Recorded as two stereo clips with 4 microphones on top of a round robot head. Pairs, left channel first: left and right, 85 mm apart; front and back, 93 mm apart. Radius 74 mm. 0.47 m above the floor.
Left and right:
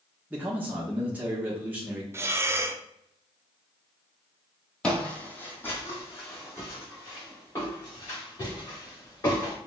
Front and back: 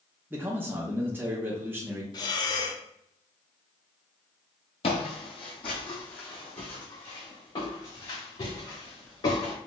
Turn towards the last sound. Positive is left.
turn(degrees=35)